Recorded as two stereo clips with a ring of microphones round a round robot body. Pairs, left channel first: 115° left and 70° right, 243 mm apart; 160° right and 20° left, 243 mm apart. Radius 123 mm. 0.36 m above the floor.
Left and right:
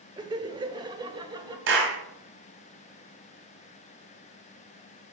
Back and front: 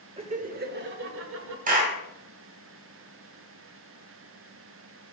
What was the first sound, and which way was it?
Laughter, 15° right.